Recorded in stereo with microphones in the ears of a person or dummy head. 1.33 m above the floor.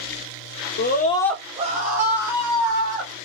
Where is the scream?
45° left (ahead or behind), 0.7 m; by 3.1 s 70° right (ahead or behind), 1.7 m.